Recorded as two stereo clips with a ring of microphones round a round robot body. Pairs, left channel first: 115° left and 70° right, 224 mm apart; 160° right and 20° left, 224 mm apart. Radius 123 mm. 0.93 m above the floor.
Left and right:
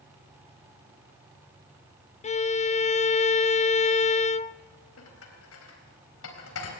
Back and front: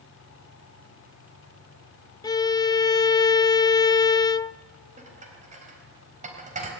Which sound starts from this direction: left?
Dishes clattering, at 5.0 s.